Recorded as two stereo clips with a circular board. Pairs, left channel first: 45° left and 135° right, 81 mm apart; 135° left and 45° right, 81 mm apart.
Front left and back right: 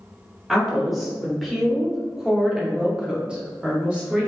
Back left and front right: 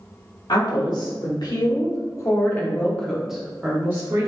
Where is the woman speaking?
135° left, 1.9 m; by 4.3 s 65° right, 1.1 m.